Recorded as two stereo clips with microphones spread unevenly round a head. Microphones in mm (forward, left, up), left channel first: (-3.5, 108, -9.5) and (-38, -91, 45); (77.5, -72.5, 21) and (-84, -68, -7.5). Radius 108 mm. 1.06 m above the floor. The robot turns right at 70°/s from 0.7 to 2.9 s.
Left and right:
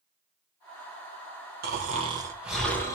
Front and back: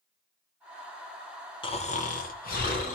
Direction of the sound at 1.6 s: 60° right.